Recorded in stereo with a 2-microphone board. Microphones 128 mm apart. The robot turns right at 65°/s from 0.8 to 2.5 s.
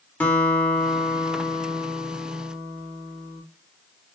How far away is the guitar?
About 0.8 m.